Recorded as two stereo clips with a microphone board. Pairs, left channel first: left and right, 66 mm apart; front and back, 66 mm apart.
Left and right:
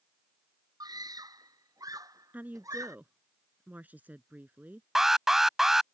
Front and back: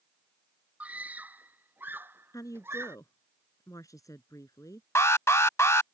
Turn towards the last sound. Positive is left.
turn(degrees=-10)